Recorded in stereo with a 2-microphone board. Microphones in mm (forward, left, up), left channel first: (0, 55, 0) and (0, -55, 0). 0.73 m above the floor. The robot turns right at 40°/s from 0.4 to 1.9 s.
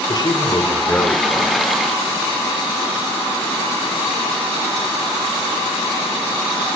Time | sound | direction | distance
0.1 | a man speaking | 140° left | 2.5 m